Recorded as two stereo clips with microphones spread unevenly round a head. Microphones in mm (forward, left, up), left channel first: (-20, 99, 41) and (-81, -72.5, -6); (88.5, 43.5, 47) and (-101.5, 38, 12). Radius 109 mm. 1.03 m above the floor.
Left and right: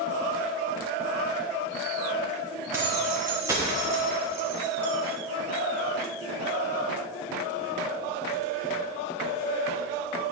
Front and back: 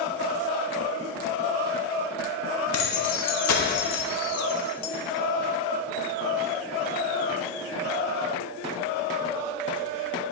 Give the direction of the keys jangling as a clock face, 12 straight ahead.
1 o'clock.